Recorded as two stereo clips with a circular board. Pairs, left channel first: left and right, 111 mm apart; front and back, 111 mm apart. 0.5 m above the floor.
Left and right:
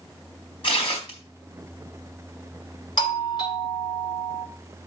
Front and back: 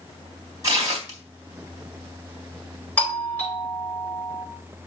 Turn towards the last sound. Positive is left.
turn(degrees=70)